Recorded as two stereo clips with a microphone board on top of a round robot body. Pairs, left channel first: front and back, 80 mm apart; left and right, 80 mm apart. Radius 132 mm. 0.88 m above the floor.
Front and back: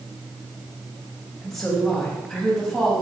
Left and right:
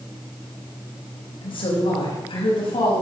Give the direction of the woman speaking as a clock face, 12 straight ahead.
9 o'clock.